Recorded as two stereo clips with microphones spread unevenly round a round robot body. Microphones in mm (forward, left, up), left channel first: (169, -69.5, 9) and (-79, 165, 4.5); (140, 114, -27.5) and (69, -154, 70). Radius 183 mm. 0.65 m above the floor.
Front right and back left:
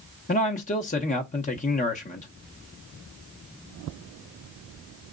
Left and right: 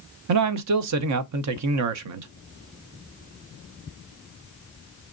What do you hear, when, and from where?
0.3 s a man speaking: 100° right, 0.6 m